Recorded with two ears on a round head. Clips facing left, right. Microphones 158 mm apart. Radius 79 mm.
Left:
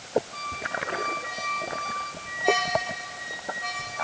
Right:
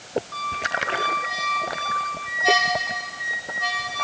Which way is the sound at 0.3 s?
75° right (ahead or behind).